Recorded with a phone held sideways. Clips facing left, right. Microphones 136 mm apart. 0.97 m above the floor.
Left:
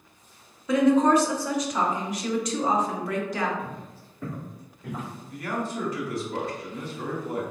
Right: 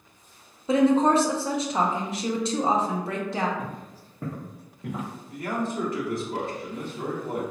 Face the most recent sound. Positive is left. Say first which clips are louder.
# right 2 dB
turn(degrees=-55)  # may be behind; listen again after turning